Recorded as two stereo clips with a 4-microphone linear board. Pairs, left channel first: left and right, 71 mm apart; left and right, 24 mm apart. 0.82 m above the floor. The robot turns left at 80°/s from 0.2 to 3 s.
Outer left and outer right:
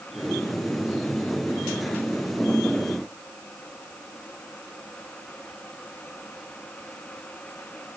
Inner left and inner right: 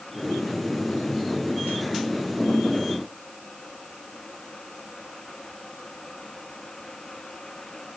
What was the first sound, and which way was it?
Only background noise.